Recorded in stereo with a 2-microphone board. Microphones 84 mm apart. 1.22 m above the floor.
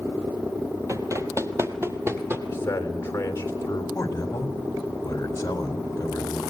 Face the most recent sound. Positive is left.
turn(degrees=40)  # may be behind; listen again after turning